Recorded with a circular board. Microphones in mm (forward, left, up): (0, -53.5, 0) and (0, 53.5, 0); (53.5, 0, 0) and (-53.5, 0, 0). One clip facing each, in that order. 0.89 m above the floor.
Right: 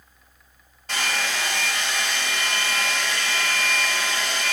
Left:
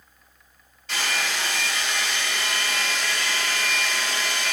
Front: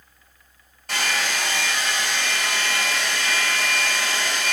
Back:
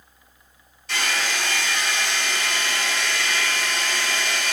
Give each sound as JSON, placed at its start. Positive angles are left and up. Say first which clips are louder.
{"t": 0.9, "sound": "a hair dryer", "louder": "right 1 dB, front 1 dB", "azimuth_deg": -40, "distance_m": 4.5}